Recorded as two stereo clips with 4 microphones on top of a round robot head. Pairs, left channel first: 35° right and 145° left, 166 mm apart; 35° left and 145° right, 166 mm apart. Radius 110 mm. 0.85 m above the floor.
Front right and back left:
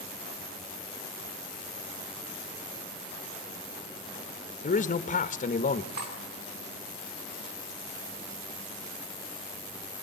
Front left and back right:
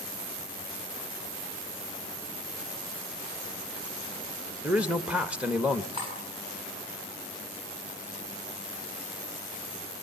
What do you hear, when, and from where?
4.6 s a man speaking: 65° right, 1.4 m
5.9 s cutlery clinking: 155° left, 6.5 m